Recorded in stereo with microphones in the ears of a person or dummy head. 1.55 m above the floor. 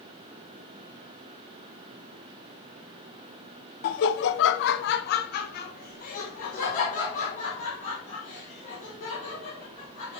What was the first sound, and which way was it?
Laughter, 50° left (ahead or behind).